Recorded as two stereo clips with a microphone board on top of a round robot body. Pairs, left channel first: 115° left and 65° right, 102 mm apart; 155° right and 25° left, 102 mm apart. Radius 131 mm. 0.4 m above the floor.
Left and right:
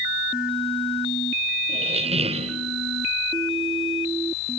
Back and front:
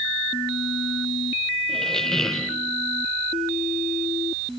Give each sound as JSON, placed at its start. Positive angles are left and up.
{"t": 1.7, "sound": "a squeak", "azimuth_deg": -75, "distance_m": 1.8}